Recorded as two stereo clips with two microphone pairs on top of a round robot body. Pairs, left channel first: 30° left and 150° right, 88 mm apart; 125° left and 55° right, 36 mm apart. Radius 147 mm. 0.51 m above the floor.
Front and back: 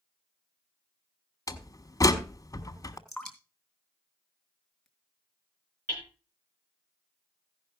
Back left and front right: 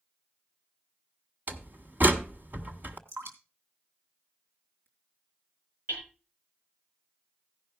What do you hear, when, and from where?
1.5 s a door slam: 20° right, 1.5 m
3.1 s dripping: 55° right, 3 m
5.9 s hammering: 85° right, 9.5 m